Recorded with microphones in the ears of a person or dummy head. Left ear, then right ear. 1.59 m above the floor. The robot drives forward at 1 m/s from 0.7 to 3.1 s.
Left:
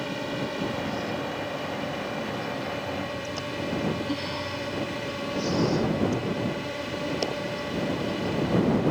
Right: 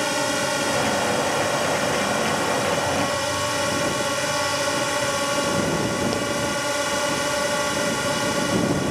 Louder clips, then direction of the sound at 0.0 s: Right 9 dB; 50° right (ahead or behind).